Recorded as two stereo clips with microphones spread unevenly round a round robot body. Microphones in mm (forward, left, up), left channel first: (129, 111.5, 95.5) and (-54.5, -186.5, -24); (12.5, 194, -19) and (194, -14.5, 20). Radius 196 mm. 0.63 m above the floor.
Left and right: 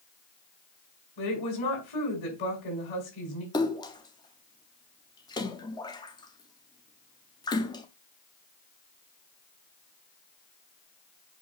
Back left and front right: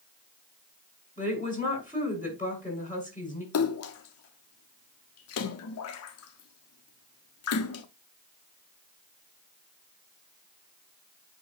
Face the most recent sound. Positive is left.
turn(degrees=150)